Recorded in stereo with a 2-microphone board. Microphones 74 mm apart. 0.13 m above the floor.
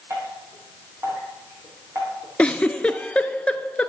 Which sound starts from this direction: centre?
A giggle, at 2.4 s.